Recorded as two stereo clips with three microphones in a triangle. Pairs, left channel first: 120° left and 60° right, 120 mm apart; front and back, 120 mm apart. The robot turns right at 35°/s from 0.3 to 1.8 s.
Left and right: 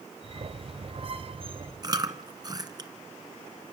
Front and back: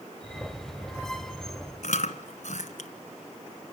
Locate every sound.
1.8 s chewing: 5° right, 1.5 m